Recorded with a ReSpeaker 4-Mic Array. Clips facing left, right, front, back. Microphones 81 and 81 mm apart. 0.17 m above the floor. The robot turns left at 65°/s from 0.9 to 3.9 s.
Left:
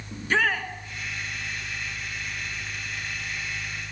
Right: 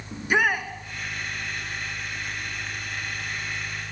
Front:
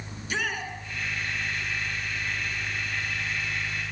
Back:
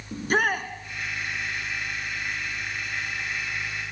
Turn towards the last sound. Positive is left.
turn(degrees=5)